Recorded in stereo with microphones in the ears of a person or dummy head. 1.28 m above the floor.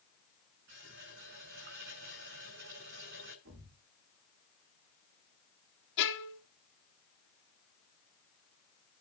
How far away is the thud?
About 5 m.